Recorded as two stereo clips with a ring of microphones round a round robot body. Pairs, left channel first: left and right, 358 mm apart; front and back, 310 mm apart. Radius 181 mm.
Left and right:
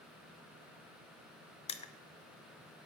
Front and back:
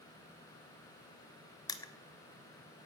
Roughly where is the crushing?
Ahead left.